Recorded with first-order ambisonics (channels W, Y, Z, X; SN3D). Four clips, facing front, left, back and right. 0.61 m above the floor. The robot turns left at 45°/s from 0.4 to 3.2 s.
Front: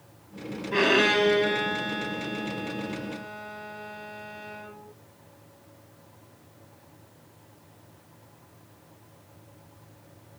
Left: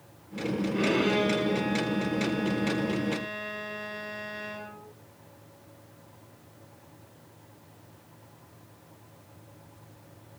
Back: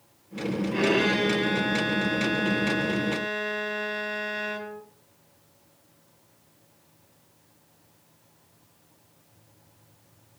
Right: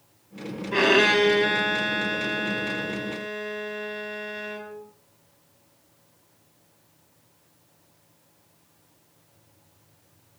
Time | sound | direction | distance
0.7 | a violin | 60° right | 4.5 m